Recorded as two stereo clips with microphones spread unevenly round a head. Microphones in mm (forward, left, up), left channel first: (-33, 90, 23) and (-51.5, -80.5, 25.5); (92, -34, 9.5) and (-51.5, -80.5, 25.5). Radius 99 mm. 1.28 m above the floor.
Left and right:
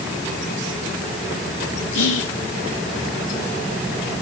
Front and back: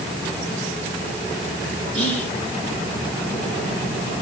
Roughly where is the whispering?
Left.